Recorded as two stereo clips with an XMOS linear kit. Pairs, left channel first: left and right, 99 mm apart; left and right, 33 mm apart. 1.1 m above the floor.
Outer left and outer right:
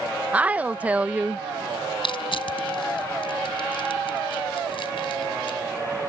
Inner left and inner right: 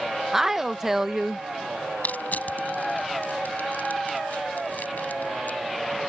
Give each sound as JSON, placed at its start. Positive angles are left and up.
{"t": 0.3, "sound": "a woman speaking", "side_deg": -15}
{"t": 2.0, "sound": "crushing", "side_deg": 65}